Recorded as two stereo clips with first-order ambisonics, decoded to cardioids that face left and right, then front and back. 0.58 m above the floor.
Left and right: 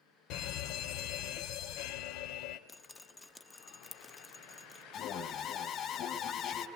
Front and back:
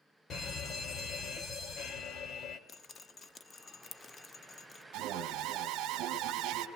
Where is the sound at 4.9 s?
140° left, 2.5 m.